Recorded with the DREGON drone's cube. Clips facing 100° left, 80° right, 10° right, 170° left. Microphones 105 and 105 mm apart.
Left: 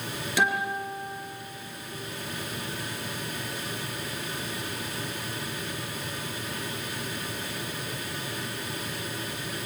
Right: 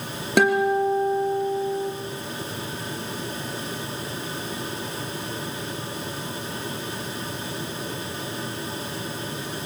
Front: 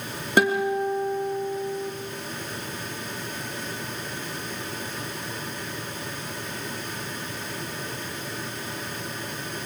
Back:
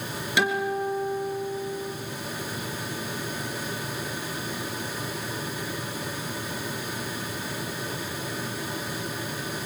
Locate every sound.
0.4 s a guitar: 55° right, 3 m